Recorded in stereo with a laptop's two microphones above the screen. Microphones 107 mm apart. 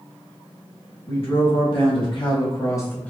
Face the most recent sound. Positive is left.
turn(degrees=10)  # may be behind; listen again after turning